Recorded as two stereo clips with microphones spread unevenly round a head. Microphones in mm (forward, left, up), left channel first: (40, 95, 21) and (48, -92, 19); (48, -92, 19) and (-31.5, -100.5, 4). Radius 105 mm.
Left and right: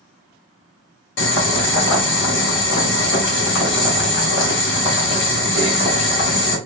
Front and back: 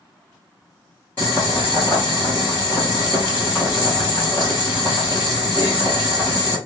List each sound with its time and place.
1.2 s boiling: 85° left, 1.4 m